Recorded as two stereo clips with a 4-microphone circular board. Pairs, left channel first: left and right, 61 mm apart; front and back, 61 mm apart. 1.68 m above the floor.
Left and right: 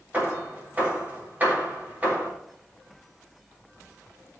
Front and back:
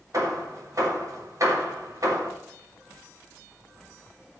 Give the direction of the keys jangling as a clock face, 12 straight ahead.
No keys jangling in this recording.